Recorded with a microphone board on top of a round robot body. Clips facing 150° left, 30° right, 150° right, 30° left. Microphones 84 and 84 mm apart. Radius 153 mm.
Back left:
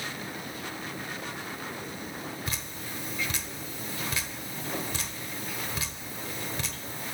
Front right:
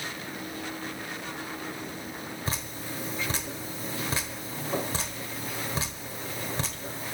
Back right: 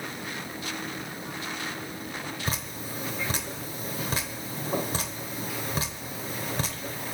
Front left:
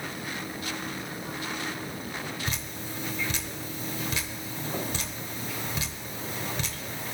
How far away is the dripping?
About 0.9 m.